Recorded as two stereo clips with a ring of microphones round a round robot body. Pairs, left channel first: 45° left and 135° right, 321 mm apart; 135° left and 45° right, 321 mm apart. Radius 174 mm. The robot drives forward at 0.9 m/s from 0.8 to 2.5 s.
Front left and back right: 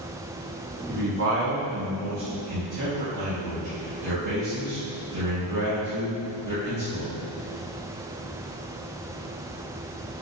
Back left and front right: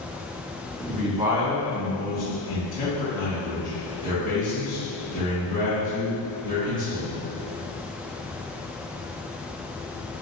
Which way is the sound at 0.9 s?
90° right.